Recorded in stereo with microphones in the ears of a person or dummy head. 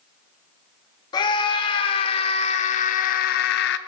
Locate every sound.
1.1 s a scream: 30° left (ahead or behind), 1.9 m; by 3.8 s 70° left (ahead or behind), 0.9 m